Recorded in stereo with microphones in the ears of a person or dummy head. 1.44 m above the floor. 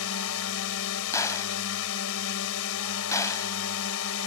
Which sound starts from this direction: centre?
A gunshot, at 1.1 s.